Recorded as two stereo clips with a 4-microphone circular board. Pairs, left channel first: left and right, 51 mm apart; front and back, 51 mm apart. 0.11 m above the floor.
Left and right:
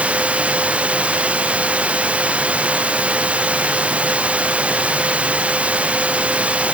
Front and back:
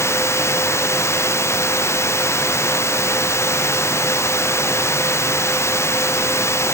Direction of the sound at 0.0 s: 25° right.